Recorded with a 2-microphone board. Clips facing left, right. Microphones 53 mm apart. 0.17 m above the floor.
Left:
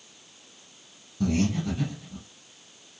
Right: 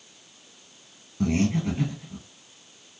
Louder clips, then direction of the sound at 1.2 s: Right 2 dB; 35° right (ahead or behind).